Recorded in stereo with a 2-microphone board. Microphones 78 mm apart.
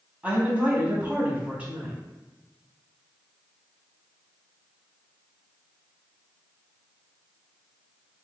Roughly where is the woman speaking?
Centre.